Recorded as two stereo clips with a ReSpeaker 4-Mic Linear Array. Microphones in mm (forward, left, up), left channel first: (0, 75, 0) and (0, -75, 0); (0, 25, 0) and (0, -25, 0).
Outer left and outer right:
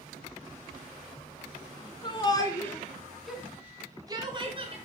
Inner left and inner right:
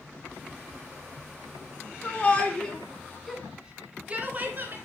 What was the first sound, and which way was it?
A shout, 30° left (ahead or behind).